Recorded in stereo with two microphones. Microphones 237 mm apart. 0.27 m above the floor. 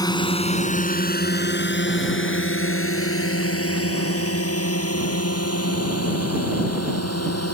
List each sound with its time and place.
0.0 s a drone: 15° left (ahead or behind); by 7.5 s 80° left